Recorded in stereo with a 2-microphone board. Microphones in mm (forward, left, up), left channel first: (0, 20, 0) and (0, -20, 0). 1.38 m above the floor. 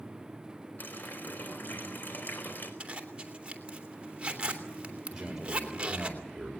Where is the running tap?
50° left (ahead or behind), 4.5 m.